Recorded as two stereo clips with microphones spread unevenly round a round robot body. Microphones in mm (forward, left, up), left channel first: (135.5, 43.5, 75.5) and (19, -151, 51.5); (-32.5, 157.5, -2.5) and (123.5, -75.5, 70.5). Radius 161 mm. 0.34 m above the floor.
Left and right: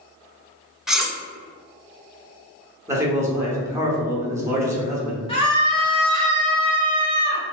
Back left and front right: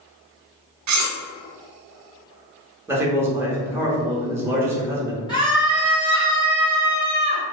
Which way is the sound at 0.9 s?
40° right.